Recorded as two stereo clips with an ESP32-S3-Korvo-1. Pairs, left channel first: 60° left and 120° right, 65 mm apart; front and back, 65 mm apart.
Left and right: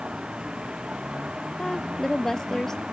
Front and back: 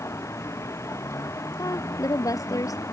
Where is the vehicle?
45° right.